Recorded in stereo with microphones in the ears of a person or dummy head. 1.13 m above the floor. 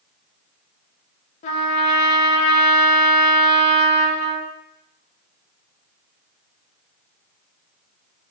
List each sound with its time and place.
1.4 s a trumpet: 40° left (ahead or behind), 0.5 m